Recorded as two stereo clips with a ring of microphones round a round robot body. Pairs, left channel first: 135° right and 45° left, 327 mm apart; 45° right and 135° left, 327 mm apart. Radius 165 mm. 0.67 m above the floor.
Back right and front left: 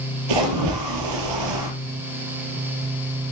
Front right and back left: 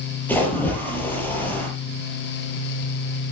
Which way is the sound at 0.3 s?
40° left.